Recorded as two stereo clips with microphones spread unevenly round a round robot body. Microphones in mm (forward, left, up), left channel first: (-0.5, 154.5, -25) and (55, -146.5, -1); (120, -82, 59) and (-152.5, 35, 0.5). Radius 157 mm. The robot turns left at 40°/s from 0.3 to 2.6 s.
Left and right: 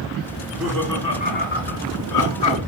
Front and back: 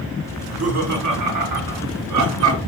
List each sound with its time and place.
0.4 s laughter: 160° right, 3 m; by 2.6 s 115° left, 3 m